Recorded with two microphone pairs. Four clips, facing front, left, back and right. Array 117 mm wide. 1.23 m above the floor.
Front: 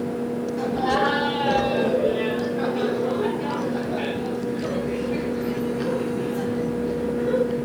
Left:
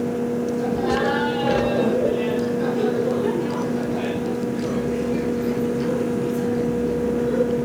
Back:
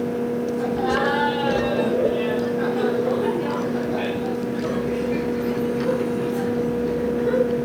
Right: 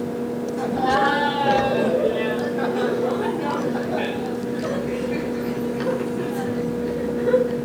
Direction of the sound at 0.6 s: 75° right.